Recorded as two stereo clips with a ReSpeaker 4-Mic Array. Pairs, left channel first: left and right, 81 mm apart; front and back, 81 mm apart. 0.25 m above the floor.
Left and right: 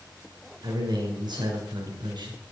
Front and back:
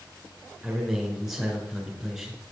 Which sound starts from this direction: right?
A man speaking, at 0.6 s.